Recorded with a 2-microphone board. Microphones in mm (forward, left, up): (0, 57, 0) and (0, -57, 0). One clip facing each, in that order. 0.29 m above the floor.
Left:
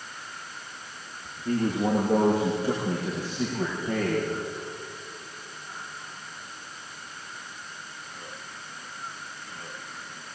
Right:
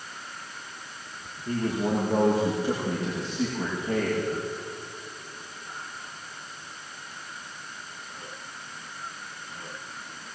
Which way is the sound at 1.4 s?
50° left (ahead or behind).